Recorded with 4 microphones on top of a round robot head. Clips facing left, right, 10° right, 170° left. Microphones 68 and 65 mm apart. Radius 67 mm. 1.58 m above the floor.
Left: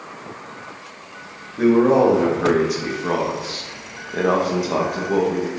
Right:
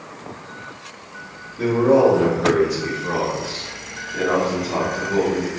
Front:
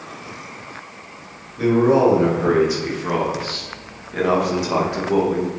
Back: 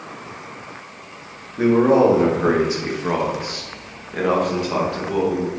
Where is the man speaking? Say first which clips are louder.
Left 1 dB, back 1 dB; 130° left, 4 m; by 5.5 s 45° left, 2.5 m.